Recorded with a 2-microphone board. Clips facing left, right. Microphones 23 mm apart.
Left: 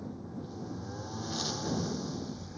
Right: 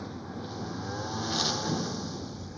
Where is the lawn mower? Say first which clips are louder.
Right 3 dB; 60° right (ahead or behind); by 2.6 s 10° right (ahead or behind).